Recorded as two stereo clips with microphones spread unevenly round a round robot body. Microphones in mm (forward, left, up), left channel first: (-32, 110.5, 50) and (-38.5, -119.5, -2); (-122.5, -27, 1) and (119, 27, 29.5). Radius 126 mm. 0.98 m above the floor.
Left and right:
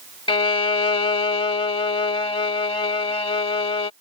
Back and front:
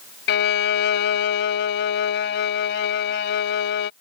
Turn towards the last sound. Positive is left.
turn(degrees=145)